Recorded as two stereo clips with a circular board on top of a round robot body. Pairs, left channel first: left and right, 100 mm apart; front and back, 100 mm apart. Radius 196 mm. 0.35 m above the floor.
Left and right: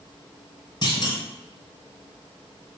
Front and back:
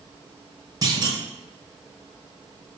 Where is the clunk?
135° left, 2.5 m.